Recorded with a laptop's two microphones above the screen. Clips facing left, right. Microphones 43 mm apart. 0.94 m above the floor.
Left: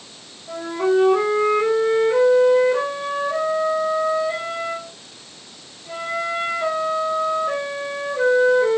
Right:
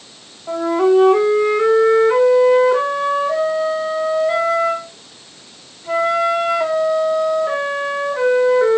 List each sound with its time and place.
0.5 s a flute: 75° right (ahead or behind), 2.5 m